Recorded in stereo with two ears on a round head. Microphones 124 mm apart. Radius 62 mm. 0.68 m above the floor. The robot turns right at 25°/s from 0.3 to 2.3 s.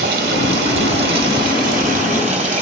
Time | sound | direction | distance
0.0 | running water | 95° right | 1.8 m